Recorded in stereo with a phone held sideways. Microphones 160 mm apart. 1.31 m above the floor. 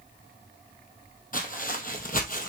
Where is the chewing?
No chewing in this recording.